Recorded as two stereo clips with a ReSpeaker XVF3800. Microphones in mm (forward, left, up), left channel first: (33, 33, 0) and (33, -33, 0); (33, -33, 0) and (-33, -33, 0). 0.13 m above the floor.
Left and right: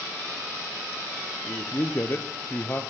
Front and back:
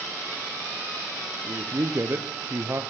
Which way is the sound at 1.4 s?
135° left.